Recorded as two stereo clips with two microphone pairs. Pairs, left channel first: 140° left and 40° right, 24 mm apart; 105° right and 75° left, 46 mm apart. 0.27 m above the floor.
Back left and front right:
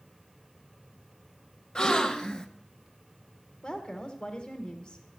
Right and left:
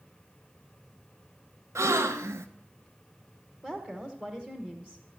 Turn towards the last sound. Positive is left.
turn(degrees=125)